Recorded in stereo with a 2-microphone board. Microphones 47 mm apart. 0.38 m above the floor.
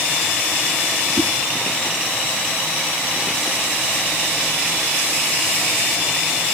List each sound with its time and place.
1.2 s a whoosh: 50° right (ahead or behind), 1.1 m